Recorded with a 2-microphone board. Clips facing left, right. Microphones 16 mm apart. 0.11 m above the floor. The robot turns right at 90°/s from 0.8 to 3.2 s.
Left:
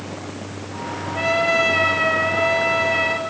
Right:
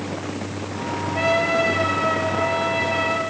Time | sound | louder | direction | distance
1.1 | a trumpet | left 2 dB | 10° right | 1.8 m